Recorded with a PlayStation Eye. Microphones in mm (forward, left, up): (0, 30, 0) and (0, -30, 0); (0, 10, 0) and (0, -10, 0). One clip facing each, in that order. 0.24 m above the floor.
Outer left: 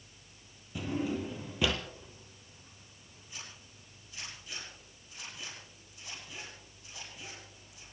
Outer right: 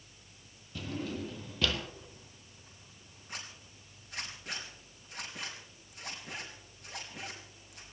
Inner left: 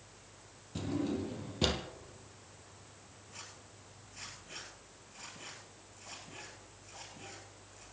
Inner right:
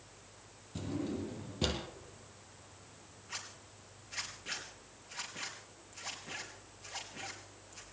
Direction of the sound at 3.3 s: 75° right (ahead or behind).